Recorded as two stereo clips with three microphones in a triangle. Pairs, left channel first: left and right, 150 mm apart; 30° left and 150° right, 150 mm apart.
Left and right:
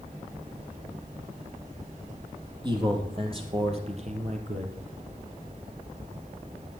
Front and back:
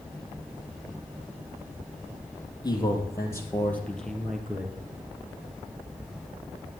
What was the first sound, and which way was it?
A man speaking, 35° right.